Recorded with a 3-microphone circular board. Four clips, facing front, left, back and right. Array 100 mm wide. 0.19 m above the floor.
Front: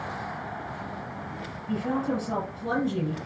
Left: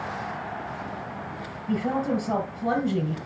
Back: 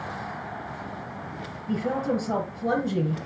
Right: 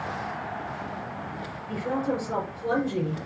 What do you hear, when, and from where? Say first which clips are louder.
1.7 s a woman speaking: left 3 dB, back 2 dB; 115° left, 4.5 m